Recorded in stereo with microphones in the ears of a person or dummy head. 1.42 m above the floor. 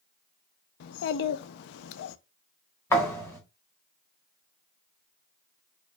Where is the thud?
15° left (ahead or behind), 1.5 m.